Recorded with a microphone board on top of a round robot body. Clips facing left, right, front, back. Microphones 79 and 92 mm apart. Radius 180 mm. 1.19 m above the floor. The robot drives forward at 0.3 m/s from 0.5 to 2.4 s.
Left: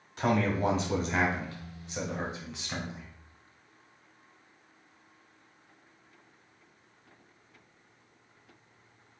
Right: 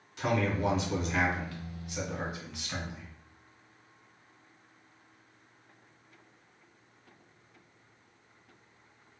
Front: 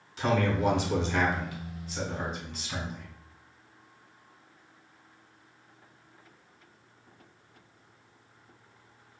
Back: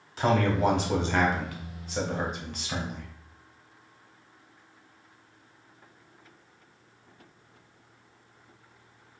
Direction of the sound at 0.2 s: 135° left.